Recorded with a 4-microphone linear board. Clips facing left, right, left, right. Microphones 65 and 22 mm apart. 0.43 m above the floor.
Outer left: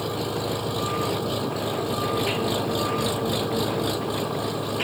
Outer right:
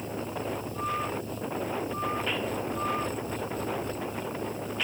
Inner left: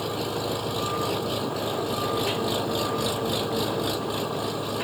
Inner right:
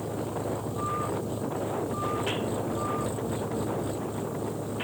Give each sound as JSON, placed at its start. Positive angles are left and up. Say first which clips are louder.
{"t": 0.0, "sound": "an engine running", "louder": "outer left 6 dB, inner left 4 dB", "side_deg": 75}